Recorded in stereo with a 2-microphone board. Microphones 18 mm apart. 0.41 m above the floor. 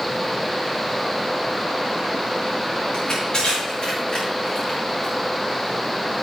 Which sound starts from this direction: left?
Crushing, at 2.9 s.